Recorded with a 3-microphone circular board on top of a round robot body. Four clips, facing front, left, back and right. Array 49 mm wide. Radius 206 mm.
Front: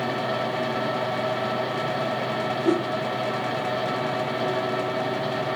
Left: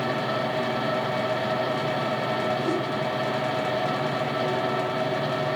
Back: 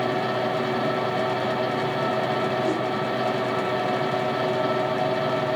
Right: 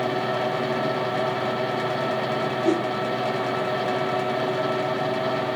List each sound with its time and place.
2.6 s a whoosh: 50° right, 2.5 m